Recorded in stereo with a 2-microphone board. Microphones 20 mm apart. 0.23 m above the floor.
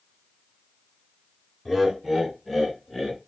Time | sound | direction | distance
1.6 | laughter | 5° right (ahead or behind) | 2 m